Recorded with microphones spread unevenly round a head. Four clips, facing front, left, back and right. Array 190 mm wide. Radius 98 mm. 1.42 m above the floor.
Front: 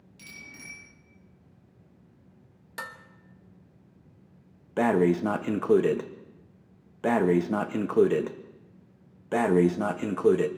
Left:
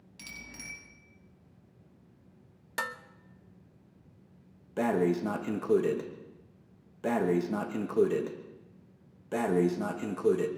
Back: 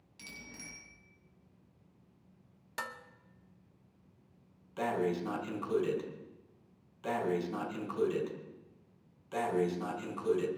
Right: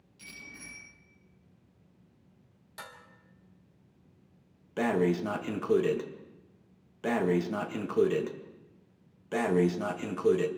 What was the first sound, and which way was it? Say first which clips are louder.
A bicycle bell: left 1 dB, front 2 dB; 90° left.